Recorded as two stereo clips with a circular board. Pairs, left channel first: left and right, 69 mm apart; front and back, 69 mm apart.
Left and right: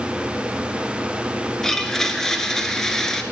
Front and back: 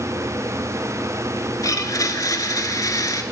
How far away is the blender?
About 0.9 m.